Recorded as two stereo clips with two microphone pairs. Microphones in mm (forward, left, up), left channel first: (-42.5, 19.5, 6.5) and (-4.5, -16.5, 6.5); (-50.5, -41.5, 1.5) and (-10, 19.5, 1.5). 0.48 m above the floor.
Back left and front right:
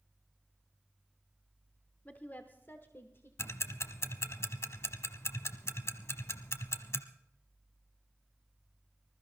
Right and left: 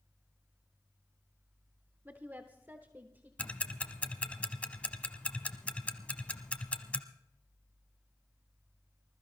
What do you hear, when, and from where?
2.0 s a woman speaking: 105° left, 0.9 m; by 3.3 s 115° left, 1.4 m
3.4 s ticking: 165° left, 0.9 m